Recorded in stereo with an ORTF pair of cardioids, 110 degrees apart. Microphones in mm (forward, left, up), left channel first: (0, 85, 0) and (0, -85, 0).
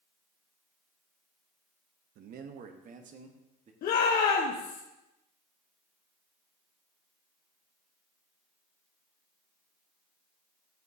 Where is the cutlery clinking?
No cutlery clinking in this recording.